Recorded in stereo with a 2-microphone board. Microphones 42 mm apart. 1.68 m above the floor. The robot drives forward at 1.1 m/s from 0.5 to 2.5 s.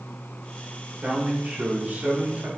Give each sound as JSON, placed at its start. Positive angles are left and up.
{"t": 1.0, "sound": "a man speaking", "side_deg": -30, "distance_m": 4.0}